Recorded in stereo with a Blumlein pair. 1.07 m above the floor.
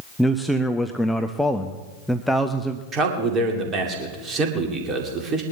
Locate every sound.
0.2 s a man speaking: straight ahead, 0.7 m
2.9 s a man speaking: 25° right, 2.5 m